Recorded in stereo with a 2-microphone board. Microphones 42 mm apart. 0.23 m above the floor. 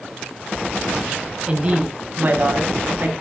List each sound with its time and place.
1.5 s a woman speaking: 25° right (ahead or behind), 1.4 m; by 3.1 s 55° right (ahead or behind), 2 m